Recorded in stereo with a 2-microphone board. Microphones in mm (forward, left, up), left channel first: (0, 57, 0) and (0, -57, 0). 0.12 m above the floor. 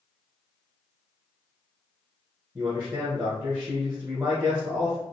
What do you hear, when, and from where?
2.5 s a man speaking: 25° right (ahead or behind), 2 m